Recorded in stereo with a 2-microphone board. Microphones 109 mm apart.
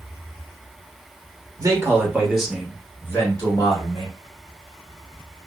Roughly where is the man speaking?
Right.